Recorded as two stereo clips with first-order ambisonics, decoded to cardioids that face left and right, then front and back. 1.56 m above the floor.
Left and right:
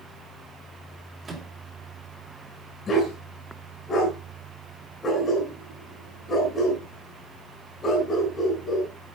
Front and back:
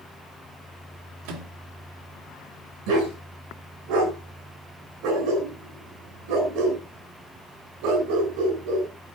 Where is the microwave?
165° right, 2.5 m.